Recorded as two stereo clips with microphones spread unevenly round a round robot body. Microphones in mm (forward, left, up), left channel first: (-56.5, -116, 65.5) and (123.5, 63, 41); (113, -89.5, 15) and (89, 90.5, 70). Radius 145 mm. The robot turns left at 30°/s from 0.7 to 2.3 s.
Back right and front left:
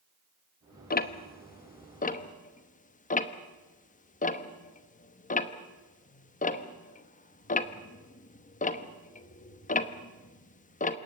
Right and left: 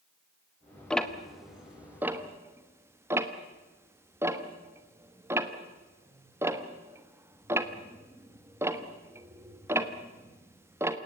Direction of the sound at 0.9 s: 125° right.